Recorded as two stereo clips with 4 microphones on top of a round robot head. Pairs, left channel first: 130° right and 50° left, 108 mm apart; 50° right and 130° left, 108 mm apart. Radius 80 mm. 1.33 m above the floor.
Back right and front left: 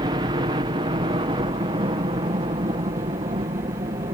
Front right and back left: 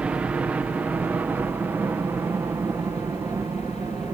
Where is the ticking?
I don't hear ticking.